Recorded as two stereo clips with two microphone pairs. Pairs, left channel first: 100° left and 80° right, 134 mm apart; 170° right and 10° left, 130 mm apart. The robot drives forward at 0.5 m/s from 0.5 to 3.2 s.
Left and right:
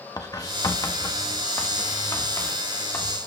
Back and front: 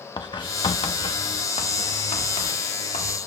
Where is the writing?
150° left, 1.0 m; by 3.2 s 170° left, 2 m.